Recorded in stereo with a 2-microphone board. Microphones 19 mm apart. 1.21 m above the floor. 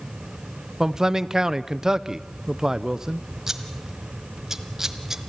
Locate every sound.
0.8 s a man speaking: 30° right (ahead or behind), 0.6 m
3.5 s scissors: 25° right (ahead or behind), 1.2 m